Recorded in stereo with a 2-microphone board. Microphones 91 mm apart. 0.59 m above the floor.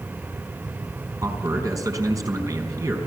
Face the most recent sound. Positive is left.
turn(degrees=-35)  # may be behind; listen again after turning